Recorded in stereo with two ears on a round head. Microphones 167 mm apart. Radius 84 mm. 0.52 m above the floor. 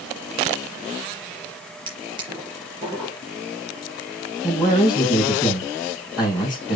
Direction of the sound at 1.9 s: 25° right (ahead or behind).